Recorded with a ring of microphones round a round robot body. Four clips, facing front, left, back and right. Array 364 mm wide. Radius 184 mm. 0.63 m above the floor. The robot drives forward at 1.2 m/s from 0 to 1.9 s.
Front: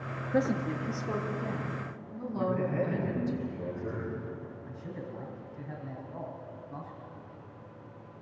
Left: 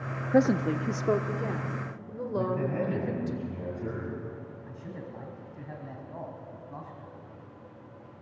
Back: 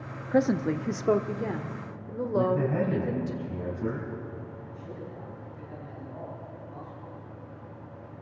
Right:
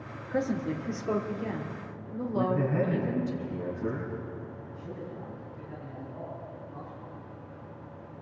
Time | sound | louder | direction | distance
0.3 | a woman speaking | left 6 dB, back 5 dB | 120° left | 0.8 m
2.4 | a man speaking | right 2 dB, back 4 dB | straight behind | 5.5 m
4.7 | a man speaking | right 1 dB, back 1 dB | 70° left | 5.5 m